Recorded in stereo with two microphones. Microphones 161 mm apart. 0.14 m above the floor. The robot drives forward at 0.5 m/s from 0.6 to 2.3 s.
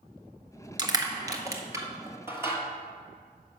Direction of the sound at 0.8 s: 25° right (ahead or behind).